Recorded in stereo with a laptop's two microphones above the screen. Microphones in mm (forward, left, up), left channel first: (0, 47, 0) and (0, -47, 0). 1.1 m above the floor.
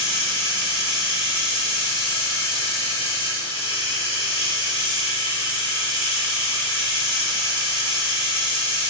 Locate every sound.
0.0 s running water: 90° left, 1.3 m